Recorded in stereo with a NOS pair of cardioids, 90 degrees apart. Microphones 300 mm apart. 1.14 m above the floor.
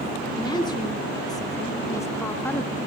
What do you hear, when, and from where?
0.3 s a woman speaking: 15° left, 2.5 m; by 2.8 s 5° left, 0.9 m